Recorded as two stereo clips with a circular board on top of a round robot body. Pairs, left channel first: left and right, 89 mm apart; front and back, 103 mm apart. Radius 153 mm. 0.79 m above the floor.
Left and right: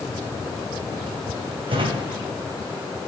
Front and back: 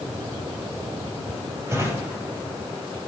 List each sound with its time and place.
1.7 s a drawer: 115° right, 3 m